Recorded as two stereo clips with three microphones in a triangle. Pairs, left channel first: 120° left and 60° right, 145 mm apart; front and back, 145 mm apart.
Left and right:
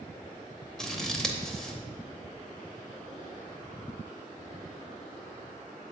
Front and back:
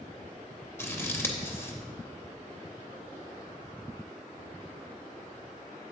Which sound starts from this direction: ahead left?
Scissors, at 0.8 s.